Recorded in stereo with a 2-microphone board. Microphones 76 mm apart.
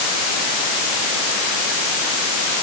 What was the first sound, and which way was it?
Only background noise.